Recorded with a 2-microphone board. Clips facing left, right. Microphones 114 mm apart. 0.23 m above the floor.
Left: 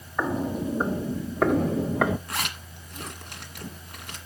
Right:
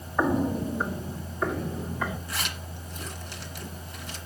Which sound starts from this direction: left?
A zipper, at 2.3 s.